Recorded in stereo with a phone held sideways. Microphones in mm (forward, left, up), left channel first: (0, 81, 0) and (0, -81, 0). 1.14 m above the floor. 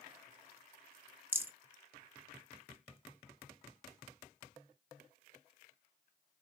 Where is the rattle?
10° right (ahead or behind), 0.7 m.